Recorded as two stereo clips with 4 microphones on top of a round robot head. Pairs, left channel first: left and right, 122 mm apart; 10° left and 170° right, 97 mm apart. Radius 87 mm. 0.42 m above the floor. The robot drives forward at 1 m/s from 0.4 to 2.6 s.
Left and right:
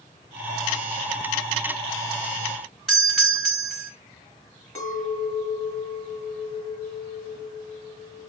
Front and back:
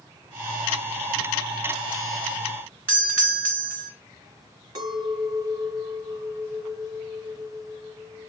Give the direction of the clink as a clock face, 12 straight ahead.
7 o'clock.